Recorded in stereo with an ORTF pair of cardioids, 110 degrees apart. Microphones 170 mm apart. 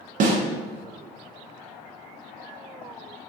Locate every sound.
0.2 s a snare drum: 55° right, 0.6 m